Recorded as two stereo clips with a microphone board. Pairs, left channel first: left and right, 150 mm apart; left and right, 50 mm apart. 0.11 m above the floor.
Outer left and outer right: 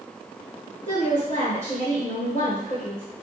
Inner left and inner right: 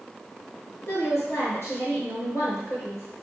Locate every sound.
0.9 s a woman speaking: 45° left (ahead or behind), 2 m